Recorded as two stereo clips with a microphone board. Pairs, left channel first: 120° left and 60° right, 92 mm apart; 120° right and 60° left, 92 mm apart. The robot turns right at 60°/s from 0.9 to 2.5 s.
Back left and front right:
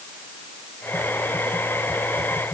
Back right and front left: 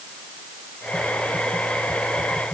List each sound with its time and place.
Only background noise.